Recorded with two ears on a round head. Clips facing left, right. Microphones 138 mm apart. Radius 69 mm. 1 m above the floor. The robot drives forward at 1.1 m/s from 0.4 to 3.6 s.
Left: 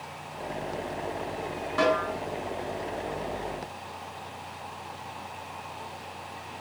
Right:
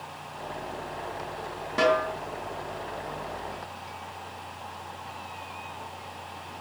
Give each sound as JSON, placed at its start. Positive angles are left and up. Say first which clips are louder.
{"t": 1.8, "sound": "a snare drum", "louder": "right 2 dB", "side_deg": -20, "distance_m": 5.5}